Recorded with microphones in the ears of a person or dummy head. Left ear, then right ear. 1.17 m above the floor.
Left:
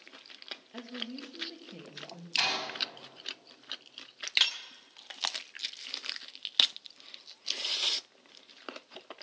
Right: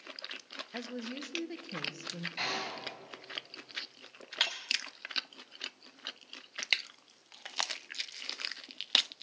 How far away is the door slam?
About 5.5 m.